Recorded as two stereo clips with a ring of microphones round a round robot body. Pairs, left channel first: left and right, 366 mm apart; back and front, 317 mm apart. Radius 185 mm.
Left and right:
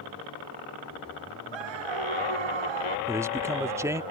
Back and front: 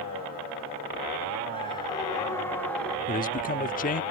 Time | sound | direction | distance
1.5 | a scream | 105° right | ?
3.1 | a man speaking | 165° right | ?